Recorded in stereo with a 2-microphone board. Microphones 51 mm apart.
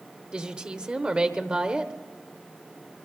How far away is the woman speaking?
About 0.9 m.